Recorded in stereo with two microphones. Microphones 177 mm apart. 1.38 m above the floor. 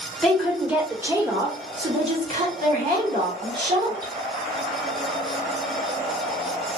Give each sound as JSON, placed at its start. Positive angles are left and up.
{"t": 0.2, "sound": "a woman speaking", "side_deg": 0, "distance_m": 1.6}